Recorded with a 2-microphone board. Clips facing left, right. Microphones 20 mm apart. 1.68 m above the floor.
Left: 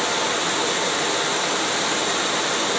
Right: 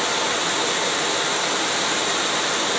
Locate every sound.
0.0 s running water: 5° right (ahead or behind), 1.2 m